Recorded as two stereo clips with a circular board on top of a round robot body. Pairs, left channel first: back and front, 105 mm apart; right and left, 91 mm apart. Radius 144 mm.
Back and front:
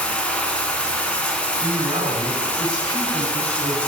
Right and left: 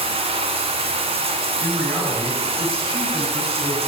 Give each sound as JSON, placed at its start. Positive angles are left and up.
{"t": 0.0, "sound": "running water", "azimuth_deg": 100, "distance_m": 1.2}
{"t": 1.6, "sound": "a man speaking", "azimuth_deg": 55, "distance_m": 6.5}